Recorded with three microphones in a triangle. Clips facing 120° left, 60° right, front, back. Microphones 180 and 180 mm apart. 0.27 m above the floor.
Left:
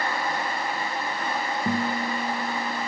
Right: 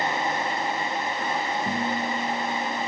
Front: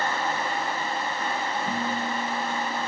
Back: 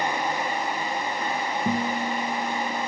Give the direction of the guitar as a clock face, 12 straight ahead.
6 o'clock.